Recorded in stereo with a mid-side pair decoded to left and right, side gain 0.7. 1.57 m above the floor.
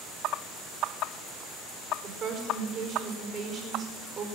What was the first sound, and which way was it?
A woman speaking, 45° right.